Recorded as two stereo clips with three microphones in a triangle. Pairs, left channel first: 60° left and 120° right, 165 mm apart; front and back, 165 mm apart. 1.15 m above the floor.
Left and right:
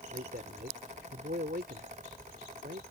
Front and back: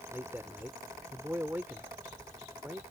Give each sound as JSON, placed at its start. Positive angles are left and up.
{"t": 0.1, "sound": "a man speaking", "azimuth_deg": -100}